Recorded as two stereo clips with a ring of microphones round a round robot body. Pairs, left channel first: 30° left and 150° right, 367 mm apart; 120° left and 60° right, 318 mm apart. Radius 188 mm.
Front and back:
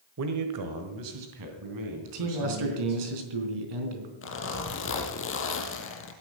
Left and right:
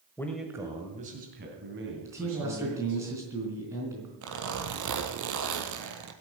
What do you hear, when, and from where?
0.2 s a man speaking: 165° right, 1.5 m; by 3.0 s 110° right, 5 m
2.0 s a man speaking: 140° right, 4 m
4.2 s a zipper: 30° right, 2.5 m